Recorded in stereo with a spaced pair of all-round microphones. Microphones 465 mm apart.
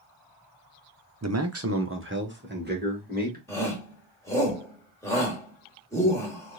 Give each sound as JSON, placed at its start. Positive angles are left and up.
{"t": 1.2, "sound": "a man speaking", "side_deg": -35, "distance_m": 0.5}
{"t": 3.5, "sound": "a shout", "side_deg": 5, "distance_m": 1.9}